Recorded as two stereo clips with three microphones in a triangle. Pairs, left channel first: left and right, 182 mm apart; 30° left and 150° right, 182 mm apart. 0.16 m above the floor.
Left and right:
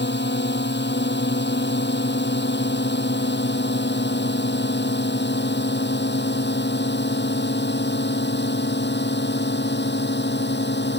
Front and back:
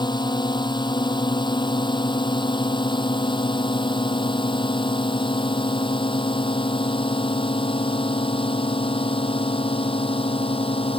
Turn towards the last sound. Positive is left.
turn(degrees=90)